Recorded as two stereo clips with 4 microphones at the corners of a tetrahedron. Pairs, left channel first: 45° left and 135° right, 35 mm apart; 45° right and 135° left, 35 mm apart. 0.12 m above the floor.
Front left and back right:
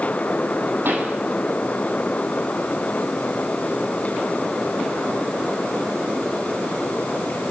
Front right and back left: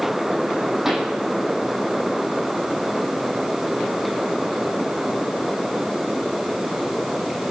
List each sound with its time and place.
0.8 s a pop: 145° right, 3 m